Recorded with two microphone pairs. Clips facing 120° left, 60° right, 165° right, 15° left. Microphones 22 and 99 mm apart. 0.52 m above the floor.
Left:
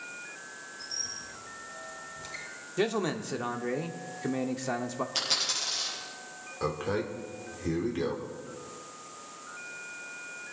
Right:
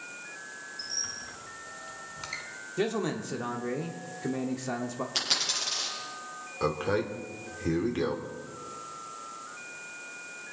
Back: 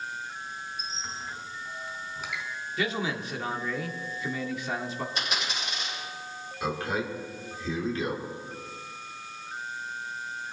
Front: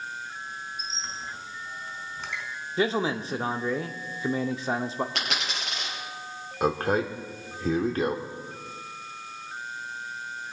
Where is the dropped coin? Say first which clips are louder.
Right 1 dB, front 1 dB; 25° left, 6 m.